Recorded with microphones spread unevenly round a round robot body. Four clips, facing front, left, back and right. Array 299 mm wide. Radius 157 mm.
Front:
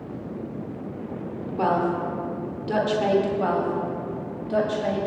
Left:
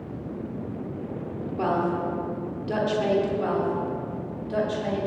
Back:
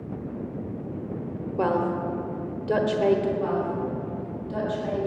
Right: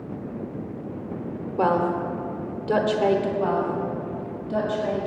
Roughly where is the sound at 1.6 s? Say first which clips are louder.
Right 3 dB, front 2 dB; behind.